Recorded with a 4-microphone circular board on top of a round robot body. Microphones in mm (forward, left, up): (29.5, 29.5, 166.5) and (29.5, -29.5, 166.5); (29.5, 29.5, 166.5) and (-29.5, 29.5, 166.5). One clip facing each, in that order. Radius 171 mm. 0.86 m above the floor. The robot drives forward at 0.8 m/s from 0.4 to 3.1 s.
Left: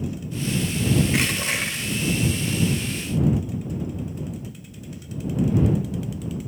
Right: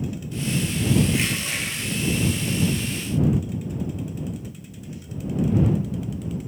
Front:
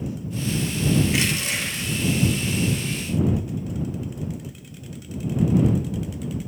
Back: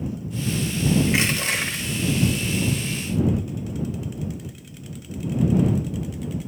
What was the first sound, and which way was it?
Crushing, 125° left.